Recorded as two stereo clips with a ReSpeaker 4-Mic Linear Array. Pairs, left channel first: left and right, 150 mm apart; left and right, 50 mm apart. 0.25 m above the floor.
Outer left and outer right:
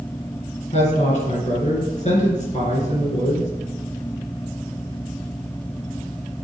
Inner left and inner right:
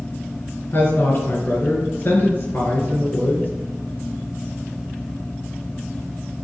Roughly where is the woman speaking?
Left.